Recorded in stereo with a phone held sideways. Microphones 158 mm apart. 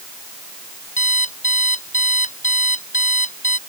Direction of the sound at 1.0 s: 50° left (ahead or behind).